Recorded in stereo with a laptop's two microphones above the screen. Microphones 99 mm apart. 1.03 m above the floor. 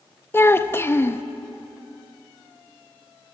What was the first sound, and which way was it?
A child speaking, 25° left (ahead or behind).